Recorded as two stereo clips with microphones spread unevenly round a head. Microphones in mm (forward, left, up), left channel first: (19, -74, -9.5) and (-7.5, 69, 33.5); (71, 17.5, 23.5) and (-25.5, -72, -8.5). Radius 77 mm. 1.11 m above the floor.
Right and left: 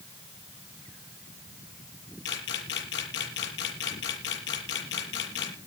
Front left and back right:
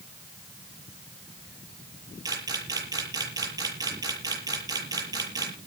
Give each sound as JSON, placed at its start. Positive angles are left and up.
{"t": 2.2, "sound": "a camera shutter", "azimuth_deg": -75, "distance_m": 6.5}